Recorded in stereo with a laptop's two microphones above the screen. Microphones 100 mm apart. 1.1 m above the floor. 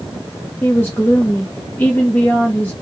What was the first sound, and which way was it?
A woman speaking, 20° left (ahead or behind).